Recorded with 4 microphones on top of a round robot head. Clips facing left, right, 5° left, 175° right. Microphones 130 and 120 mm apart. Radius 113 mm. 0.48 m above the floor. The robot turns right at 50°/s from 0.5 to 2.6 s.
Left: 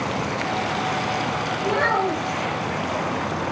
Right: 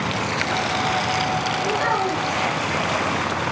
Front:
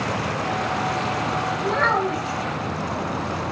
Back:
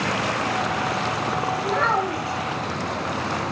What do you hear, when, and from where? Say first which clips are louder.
1.6 s a child speaking: left 3 dB, front 2 dB; 90° left, 2 m; by 2.4 s 130° left, 2 m